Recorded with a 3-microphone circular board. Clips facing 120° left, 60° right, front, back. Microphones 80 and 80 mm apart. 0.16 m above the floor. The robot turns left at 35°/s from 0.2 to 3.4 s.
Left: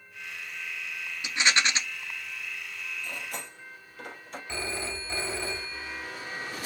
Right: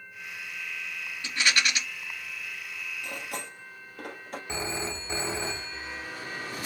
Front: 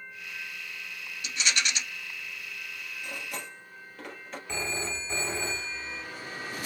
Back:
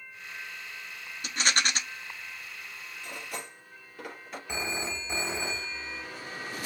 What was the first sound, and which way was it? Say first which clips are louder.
A rattle: left 1 dB, back 3 dB; 175° right.